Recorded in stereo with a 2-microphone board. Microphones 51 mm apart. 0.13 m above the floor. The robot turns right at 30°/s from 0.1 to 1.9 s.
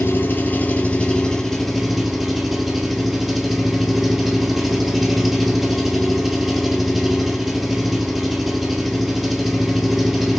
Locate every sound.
0.0 s an engine running: 135° left, 1.1 m; by 10.4 s 175° right, 1.1 m